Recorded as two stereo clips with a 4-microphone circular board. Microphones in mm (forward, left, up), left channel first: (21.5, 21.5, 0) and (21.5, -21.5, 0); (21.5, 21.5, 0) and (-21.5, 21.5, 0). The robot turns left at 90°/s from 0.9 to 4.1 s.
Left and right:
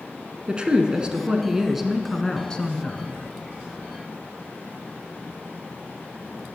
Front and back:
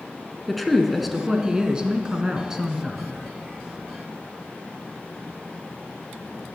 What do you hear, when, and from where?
0.5 s a woman speaking: 85° right, 1.1 m; by 3.1 s 75° left, 1.1 m